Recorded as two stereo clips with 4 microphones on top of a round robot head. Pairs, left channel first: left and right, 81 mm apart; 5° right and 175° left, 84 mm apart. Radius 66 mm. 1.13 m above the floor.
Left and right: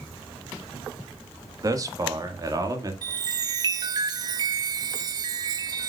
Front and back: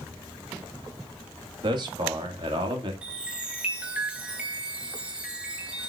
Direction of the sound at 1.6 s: 140° right.